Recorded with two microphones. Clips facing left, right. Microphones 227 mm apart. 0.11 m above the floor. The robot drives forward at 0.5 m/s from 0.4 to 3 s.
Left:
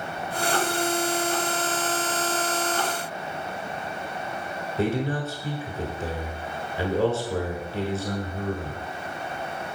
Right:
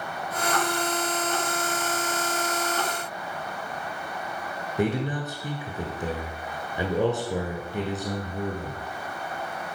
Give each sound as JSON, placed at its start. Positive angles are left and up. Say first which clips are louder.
{"t": 4.8, "sound": "a man speaking", "louder": "left 1 dB", "side_deg": -15, "distance_m": 1.2}